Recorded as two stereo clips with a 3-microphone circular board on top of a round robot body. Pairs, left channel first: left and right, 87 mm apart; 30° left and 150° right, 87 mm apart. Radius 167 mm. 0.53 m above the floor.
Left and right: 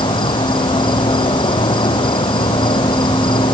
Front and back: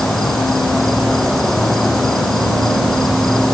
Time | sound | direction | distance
0.0 | an insect | 115° left | ?